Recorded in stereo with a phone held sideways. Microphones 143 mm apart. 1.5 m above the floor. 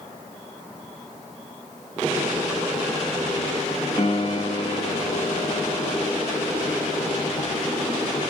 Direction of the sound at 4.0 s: 35° left (ahead or behind).